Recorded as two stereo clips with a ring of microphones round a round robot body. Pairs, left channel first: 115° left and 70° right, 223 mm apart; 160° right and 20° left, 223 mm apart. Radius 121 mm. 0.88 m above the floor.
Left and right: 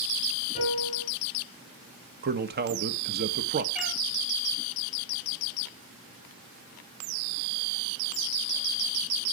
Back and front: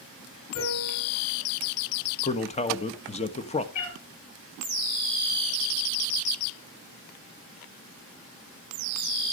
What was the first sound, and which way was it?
A piano, 170° left.